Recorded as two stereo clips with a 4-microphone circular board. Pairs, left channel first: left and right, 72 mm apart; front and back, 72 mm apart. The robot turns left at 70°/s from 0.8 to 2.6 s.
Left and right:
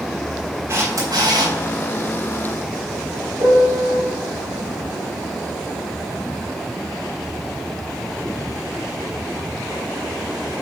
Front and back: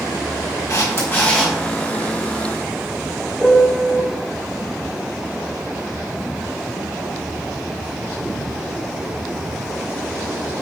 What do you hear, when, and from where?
0.7 s a camera shutter: 40° right, 3.5 m; by 1.6 s 90° right, 3.5 m
3.4 s a piano: 90° right, 2.5 m